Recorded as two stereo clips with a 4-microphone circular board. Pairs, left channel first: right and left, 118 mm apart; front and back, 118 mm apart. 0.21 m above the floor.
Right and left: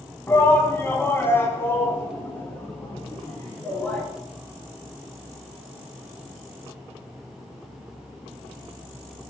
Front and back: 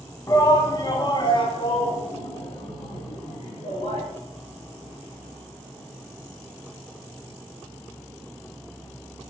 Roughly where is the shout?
Ahead right.